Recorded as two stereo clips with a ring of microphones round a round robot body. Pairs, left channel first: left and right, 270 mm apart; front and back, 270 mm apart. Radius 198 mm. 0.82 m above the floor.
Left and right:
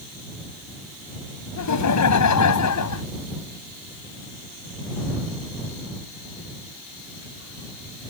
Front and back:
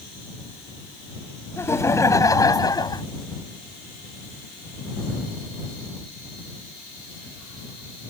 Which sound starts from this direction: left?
Laughter, at 1.6 s.